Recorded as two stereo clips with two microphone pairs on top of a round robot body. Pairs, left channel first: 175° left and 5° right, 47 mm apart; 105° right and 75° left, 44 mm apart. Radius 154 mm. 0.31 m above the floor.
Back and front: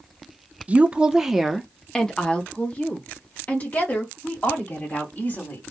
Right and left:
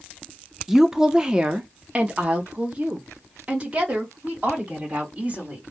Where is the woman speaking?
5° left, 0.9 m; by 5.6 s 135° left, 3 m.